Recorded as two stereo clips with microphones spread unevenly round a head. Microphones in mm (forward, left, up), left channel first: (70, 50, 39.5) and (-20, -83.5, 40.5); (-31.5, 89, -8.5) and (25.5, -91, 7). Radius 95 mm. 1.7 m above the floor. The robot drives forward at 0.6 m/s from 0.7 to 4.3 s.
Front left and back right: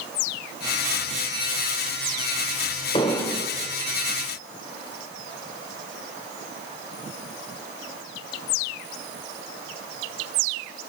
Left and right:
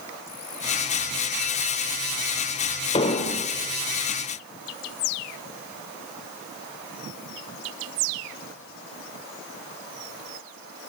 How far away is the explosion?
About 0.6 m.